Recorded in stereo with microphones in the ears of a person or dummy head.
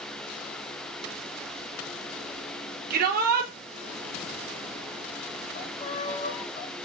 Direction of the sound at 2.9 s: 55° right (ahead or behind).